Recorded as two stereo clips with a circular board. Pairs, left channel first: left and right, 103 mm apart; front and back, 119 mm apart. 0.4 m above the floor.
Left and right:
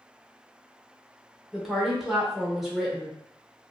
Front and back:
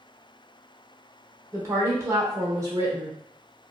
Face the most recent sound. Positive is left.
turn(degrees=-175)